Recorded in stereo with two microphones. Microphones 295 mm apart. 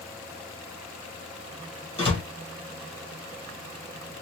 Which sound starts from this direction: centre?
A door slam, at 2.0 s.